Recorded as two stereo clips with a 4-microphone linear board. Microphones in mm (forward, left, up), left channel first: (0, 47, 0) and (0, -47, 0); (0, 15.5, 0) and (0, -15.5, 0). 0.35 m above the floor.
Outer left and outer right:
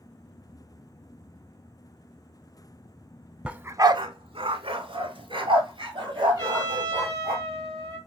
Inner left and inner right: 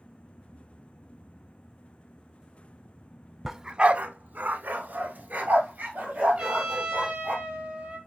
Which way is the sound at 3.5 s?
10° right (ahead or behind).